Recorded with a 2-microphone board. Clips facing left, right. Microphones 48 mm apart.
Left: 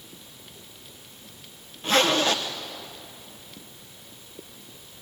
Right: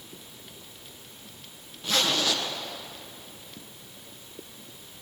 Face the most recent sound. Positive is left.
turn(degrees=35)  # may be behind; listen again after turning